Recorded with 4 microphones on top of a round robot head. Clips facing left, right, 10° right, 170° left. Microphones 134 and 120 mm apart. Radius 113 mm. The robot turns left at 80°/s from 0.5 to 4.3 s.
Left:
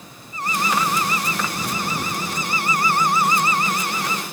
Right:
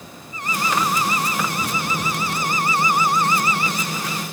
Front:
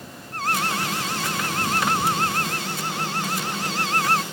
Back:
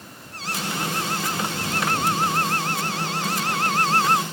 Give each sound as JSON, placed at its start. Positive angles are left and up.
{"t": 0.3, "sound": "an alarm", "azimuth_deg": 30}